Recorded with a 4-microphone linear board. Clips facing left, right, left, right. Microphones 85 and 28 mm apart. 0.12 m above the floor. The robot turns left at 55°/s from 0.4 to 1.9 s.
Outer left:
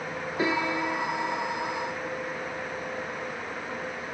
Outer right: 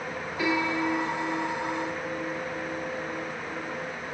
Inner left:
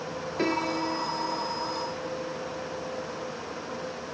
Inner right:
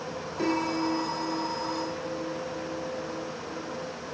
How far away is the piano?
About 1.6 m.